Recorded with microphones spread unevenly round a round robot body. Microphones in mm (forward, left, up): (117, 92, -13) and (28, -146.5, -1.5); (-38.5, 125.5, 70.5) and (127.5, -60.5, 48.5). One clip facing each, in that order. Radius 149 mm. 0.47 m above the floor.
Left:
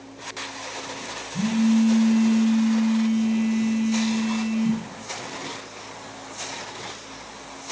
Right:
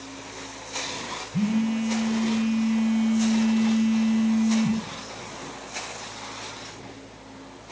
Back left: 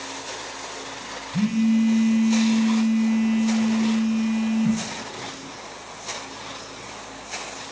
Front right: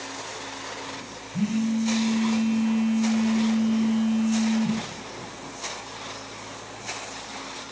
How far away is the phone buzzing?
About 1.6 m.